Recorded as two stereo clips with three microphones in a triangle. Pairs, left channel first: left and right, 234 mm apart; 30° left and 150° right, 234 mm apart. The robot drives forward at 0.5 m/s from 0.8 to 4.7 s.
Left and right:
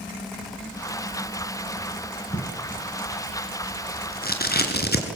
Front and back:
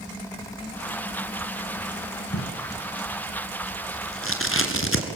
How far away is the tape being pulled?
About 4 m.